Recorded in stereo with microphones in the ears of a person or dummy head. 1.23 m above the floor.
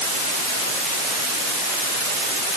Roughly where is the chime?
I don't hear a chime.